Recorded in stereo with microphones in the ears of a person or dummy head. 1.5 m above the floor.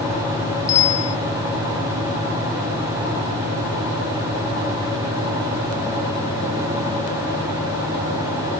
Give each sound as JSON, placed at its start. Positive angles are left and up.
{"t": 0.7, "sound": "a bicycle bell", "side_deg": 20}